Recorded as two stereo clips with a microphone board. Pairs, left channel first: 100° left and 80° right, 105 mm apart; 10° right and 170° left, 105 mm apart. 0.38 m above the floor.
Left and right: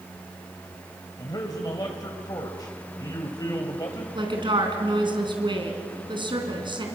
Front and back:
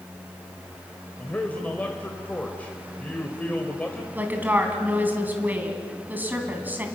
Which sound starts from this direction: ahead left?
A man speaking, at 1.2 s.